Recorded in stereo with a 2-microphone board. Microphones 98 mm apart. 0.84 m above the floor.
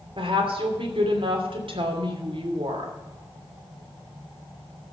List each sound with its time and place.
0.2 s a woman speaking: 65° right (ahead or behind), 2.5 m